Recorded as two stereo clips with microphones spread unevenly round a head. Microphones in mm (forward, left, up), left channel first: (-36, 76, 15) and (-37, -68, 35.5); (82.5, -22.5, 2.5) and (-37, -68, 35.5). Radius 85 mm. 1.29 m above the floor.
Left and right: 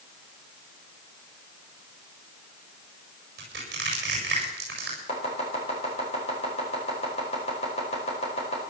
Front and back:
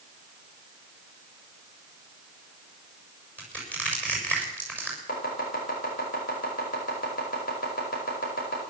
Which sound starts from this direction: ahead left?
Chopping, at 5.1 s.